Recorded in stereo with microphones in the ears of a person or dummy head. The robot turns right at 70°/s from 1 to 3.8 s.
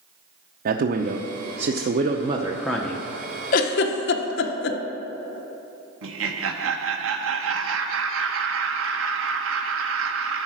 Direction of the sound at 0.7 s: 120° right.